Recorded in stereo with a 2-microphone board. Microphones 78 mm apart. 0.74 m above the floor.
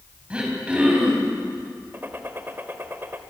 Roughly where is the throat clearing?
Centre.